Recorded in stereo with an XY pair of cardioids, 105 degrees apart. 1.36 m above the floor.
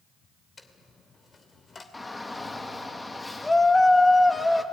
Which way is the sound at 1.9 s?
20° left.